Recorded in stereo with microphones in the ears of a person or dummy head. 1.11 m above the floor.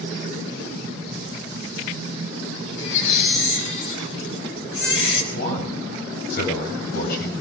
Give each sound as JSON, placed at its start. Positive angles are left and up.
{"t": 2.8, "sound": "a baby crying", "side_deg": 70, "distance_m": 5.0}
{"t": 5.3, "sound": "a man speaking", "side_deg": 55, "distance_m": 7.5}